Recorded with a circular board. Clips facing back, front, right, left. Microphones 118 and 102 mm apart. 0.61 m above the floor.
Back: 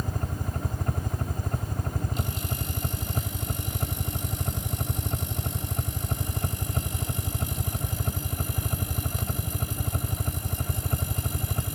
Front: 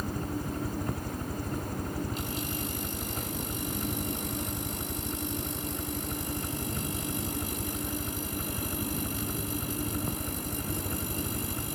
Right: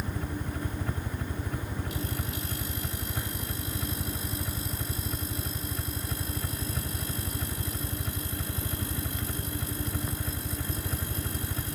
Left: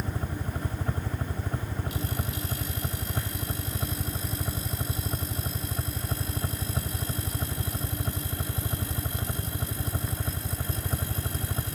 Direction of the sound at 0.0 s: 145° left.